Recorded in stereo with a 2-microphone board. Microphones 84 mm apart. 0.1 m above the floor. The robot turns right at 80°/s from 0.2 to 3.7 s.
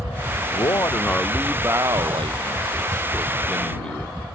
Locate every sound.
0.5 s a man speaking: 115° left; by 4.3 s 15° left